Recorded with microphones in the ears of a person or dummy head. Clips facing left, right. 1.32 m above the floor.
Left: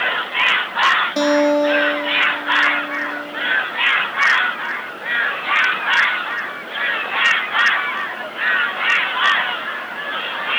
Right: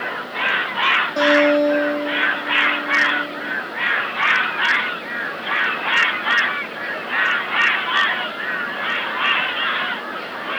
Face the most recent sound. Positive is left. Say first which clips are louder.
# even
turn(degrees=25)  # may be behind; listen again after turning